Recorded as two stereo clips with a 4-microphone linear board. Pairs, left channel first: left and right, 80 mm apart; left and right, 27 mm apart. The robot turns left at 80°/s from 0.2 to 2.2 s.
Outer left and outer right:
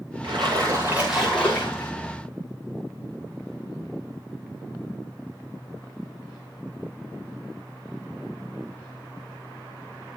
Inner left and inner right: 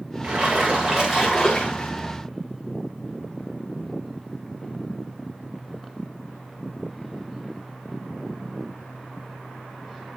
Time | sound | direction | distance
0.2 | a splash | 100° right | 8.5 m